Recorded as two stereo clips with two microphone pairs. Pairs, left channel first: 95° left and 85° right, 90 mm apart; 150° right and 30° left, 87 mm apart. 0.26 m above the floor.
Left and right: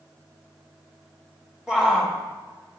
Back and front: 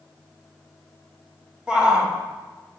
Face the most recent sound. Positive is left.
turn(degrees=-15)